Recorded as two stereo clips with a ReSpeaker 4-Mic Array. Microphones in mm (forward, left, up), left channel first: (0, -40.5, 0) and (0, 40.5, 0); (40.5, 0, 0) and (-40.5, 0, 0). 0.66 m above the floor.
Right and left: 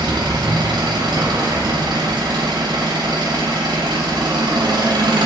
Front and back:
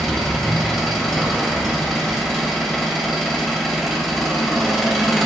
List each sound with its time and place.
0.0 s an engine running: 85° left, 2 m